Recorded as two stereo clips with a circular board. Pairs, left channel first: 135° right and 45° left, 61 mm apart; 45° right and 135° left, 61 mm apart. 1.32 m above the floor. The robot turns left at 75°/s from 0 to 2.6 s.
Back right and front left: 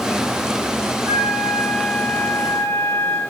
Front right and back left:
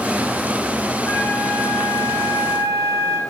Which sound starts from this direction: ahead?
A flute, at 1.1 s.